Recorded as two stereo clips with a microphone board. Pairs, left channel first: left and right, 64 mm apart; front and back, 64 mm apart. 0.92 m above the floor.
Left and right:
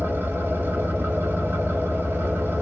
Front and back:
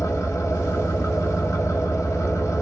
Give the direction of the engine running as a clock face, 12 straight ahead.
1 o'clock.